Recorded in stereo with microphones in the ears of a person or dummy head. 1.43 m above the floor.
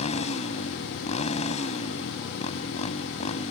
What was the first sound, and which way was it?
A motorcycle, 35° left (ahead or behind).